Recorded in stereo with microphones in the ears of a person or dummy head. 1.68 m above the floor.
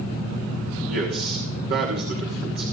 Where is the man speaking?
55° right (ahead or behind), 3 m.